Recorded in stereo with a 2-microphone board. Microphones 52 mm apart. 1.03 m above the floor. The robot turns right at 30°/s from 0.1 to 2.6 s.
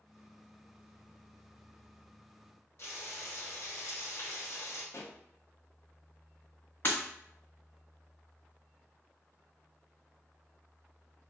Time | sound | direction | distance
2.8 | frying | 55° left (ahead or behind) | 1.4 m
4.9 | a pop | 60° left (ahead or behind) | 0.5 m
6.8 | breaking glass | 40° left (ahead or behind) | 1.5 m